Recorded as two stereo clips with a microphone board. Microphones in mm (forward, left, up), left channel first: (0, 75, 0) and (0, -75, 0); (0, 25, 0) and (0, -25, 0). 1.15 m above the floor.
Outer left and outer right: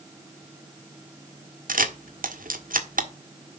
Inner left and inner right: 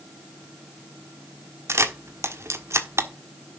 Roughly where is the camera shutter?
Right.